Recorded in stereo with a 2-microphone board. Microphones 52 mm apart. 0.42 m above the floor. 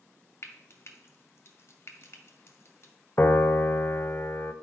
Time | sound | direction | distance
0.4 | frying | 50° left (ahead or behind) | 1.3 m
3.2 | a piano | 40° left (ahead or behind) | 0.6 m